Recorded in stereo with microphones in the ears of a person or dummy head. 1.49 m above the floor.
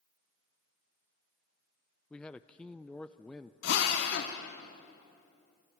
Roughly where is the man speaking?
Centre.